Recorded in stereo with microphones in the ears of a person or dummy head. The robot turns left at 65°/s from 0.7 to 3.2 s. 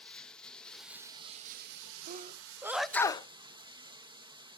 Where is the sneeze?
50° right (ahead or behind), 0.6 m; by 3.3 s 20° left (ahead or behind), 0.6 m.